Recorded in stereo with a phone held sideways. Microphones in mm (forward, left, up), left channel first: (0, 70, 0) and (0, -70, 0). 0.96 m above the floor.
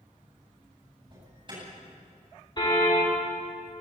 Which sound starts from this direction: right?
An alarm, at 1.1 s.